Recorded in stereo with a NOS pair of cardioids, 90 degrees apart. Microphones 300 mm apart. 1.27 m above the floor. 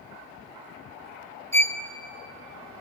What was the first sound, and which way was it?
A violin, 10° left.